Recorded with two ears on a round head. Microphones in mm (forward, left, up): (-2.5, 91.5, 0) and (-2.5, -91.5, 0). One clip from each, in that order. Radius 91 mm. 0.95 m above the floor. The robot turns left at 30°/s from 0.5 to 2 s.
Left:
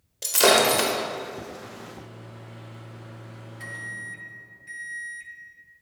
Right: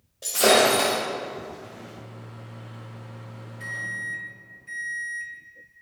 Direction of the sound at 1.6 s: 10° left (ahead or behind).